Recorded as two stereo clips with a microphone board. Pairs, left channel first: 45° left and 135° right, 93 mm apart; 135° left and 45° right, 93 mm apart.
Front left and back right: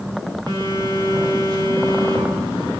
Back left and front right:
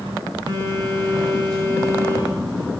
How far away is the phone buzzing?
About 3 m.